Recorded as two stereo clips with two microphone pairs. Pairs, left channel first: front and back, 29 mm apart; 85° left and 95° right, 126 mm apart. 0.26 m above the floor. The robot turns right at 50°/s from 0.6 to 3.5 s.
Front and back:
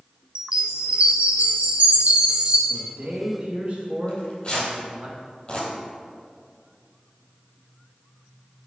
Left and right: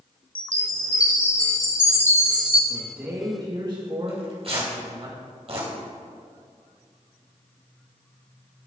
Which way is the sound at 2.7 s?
Straight behind.